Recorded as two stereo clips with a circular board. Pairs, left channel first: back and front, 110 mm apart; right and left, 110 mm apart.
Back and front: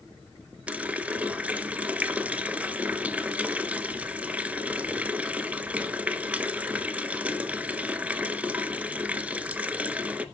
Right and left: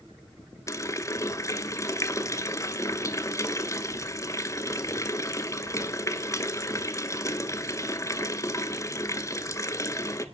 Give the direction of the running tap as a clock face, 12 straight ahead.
2 o'clock.